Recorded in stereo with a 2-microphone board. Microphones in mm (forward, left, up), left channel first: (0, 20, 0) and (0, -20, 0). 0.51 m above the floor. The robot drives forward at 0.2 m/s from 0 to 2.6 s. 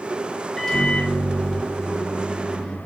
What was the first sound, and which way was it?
A microwave, 10° left (ahead or behind).